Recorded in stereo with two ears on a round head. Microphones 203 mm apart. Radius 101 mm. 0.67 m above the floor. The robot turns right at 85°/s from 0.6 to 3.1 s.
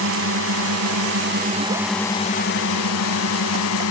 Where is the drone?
110° right; by 3.9 s 100° left.